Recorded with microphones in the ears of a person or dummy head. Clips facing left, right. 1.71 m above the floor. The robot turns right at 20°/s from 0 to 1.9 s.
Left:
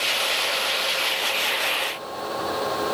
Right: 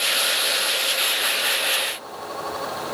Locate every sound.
Only background noise.